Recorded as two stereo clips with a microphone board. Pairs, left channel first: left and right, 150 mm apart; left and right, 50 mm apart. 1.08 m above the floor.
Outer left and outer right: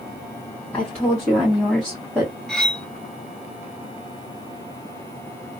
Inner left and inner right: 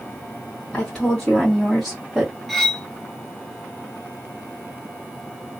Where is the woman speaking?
15° left (ahead or behind), 2 m; by 2.3 s 10° right (ahead or behind), 1.1 m.